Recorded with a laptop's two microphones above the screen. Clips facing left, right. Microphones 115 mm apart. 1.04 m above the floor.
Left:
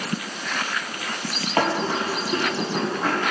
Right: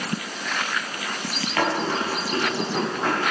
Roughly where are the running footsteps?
Left.